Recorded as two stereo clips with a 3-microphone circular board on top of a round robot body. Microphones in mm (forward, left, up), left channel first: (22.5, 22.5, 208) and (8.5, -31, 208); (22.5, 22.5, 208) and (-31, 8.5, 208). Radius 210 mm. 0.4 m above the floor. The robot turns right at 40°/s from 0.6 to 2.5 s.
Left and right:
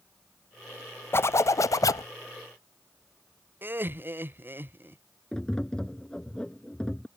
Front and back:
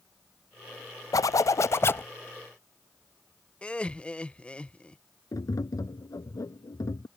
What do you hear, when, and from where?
1.1 s a zipper: 30° left; by 2.1 s 70° left
3.6 s laughter: 55° right
5.3 s tapping: straight ahead